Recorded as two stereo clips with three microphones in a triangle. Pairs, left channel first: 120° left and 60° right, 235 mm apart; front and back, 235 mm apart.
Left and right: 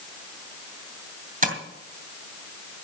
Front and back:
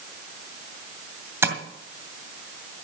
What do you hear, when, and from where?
1.4 s tapping: 105° right, 2.5 m